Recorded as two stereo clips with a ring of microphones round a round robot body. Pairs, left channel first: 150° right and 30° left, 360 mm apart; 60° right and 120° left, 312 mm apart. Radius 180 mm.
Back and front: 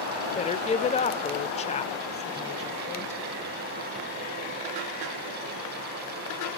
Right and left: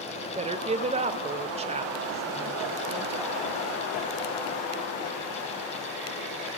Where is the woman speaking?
160° left, 0.8 m.